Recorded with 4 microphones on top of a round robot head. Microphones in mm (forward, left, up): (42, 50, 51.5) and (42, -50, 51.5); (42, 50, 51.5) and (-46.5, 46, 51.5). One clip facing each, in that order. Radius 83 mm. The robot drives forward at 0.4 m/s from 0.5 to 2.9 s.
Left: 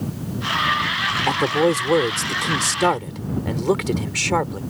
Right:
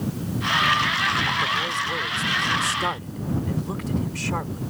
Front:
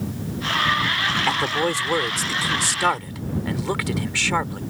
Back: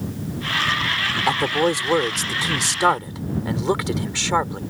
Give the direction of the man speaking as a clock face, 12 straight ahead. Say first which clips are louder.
Left 8 dB, back 5 dB; 8 o'clock.